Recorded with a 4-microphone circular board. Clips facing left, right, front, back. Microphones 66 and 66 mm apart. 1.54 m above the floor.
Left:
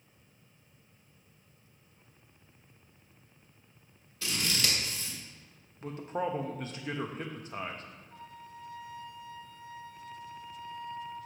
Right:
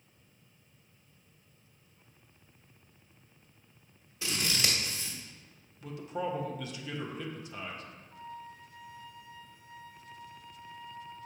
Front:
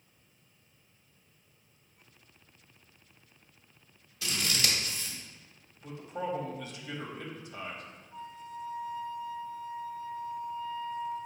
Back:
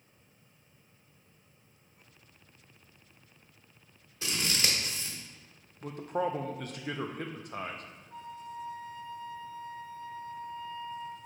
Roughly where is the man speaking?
Behind left.